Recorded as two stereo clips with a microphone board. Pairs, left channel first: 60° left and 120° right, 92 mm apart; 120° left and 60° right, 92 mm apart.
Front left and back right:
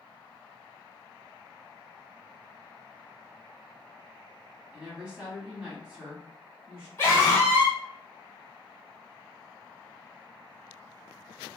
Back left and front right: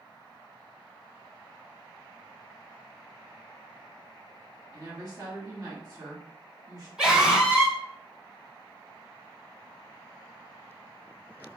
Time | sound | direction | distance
4.7 | a woman speaking | 45° right | 1.3 m
7.0 | a scream | 15° left | 1.8 m